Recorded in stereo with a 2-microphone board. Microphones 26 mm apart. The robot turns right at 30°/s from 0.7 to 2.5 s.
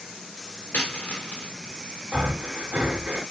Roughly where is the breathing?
Right.